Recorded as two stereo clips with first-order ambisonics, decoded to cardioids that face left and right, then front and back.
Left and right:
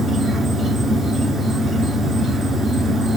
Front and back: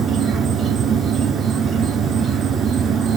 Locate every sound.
0.0 s an insect: 155° right, 1.5 m